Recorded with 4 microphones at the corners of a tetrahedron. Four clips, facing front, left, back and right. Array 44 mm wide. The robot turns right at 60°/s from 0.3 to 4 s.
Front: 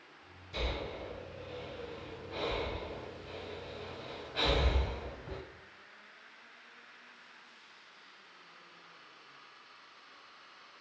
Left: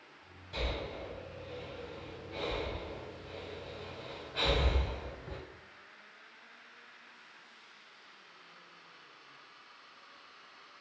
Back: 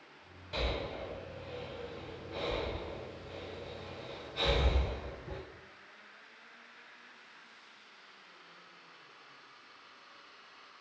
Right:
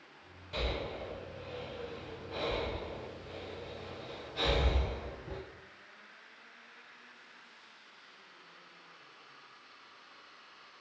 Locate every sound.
0.5 s breathing: 175° right, 1.2 m; by 5.4 s 30° left, 1.2 m